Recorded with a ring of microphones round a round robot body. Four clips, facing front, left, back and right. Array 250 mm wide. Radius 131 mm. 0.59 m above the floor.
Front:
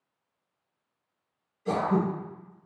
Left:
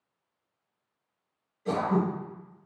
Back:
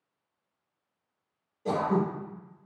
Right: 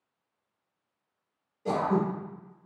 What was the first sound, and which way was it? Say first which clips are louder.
Throat clearing: even, front 1 dB; 145° right.